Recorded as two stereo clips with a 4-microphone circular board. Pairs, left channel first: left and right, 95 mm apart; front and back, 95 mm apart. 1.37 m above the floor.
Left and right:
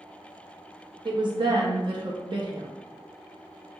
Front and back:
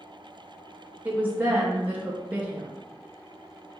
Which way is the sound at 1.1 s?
110° right.